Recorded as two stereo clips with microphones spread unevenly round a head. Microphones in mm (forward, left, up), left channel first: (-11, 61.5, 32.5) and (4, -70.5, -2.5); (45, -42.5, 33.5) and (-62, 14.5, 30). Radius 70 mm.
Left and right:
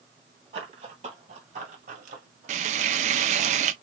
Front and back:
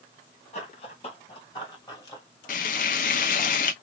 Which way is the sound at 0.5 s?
25° right.